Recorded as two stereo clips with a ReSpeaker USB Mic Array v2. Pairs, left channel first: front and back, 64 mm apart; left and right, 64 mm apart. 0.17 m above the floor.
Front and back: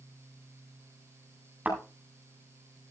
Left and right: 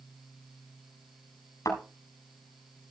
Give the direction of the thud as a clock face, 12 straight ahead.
8 o'clock.